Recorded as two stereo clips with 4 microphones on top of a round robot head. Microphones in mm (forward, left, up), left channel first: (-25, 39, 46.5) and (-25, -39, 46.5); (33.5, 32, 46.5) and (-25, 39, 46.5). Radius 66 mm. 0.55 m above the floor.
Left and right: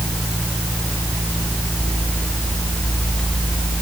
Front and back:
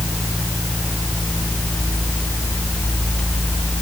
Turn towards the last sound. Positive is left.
No sound to turn to.